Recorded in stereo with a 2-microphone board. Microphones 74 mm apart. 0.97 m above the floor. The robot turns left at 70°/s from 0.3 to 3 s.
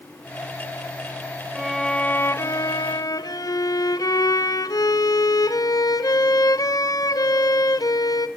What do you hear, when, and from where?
1.6 s a violin: 170° right, 1.0 m; by 8.3 s 90° left, 1.0 m